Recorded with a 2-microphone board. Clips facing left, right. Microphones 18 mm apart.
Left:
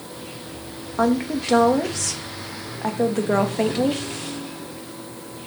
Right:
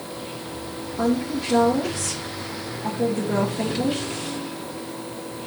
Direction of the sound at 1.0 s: 55° left (ahead or behind).